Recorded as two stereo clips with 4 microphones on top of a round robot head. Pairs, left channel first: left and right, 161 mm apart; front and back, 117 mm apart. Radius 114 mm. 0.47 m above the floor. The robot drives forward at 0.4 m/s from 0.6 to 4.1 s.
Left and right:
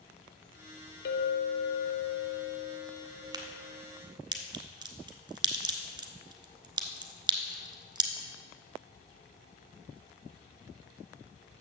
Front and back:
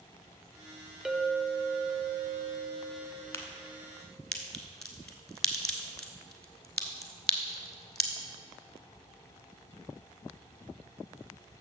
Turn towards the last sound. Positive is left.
turn(degrees=-75)